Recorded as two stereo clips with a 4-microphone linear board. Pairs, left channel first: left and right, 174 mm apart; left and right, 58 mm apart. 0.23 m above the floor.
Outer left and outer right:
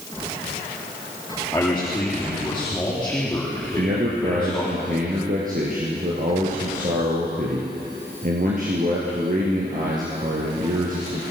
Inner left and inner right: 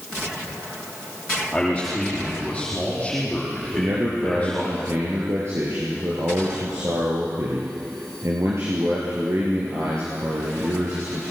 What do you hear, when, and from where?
1.5 s a man speaking: 10° left (ahead or behind), 8.5 m
3.7 s a man speaking: 55° right (ahead or behind), 4.5 m